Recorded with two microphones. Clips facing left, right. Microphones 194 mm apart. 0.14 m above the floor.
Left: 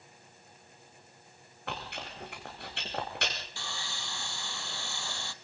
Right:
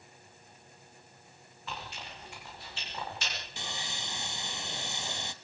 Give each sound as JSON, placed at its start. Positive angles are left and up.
{"t": 1.7, "sound": "chewing", "side_deg": 65, "distance_m": 3.5}
{"t": 3.6, "sound": "sawing", "side_deg": -20, "distance_m": 0.8}